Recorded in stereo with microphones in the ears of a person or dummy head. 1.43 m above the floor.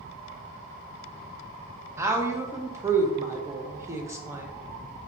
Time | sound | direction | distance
2.0 | a woman speaking | 15° right (ahead or behind) | 0.5 m